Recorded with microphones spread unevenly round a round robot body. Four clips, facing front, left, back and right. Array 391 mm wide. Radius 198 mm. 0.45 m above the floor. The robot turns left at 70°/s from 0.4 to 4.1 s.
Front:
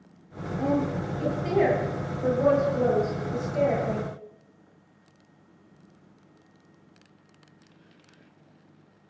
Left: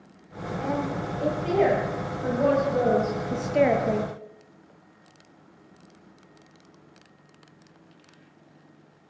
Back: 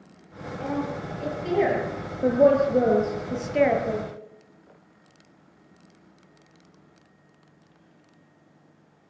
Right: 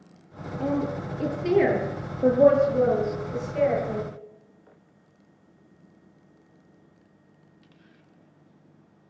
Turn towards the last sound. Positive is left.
turn(degrees=90)